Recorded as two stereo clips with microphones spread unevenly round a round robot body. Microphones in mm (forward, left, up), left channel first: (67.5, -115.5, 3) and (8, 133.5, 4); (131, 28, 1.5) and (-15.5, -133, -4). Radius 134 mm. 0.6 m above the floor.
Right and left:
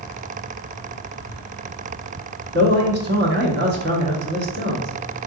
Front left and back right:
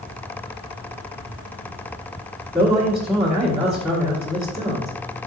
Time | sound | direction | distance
2.5 | a man speaking | 140° left | 1.2 m